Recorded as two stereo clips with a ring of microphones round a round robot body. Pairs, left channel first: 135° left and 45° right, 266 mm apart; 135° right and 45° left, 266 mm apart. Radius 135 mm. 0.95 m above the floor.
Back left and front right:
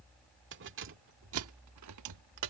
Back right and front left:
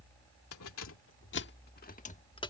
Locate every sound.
0.5 s keys jangling: 95° right; by 2.5 s 60° right